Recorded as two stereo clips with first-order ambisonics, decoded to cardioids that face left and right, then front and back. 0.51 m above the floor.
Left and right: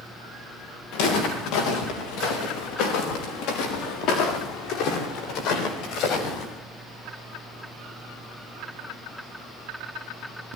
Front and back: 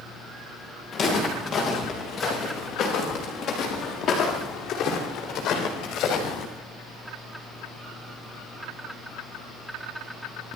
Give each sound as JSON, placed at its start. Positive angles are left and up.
{"t": 0.9, "sound": "footsteps", "azimuth_deg": 70, "distance_m": 7.5}